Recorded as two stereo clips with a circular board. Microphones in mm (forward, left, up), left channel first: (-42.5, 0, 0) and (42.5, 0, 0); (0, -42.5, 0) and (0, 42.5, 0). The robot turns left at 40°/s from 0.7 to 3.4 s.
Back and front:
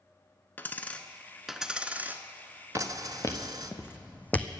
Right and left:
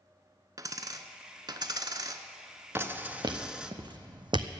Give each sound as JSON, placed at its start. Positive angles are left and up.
{"t": 0.6, "sound": "a dropped coin", "azimuth_deg": 120, "distance_m": 0.7}
{"t": 2.8, "sound": "footsteps", "azimuth_deg": 145, "distance_m": 1.6}